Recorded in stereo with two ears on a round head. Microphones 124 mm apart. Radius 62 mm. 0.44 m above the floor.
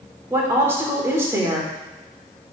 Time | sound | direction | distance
0.3 | a woman speaking | 20° right (ahead or behind) | 1.4 m